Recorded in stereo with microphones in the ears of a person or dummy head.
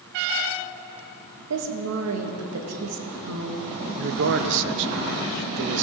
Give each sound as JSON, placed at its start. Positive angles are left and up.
{"t": 1.5, "sound": "a woman speaking", "side_deg": -75, "distance_m": 1.8}
{"t": 4.0, "sound": "a man speaking", "side_deg": -60, "distance_m": 0.7}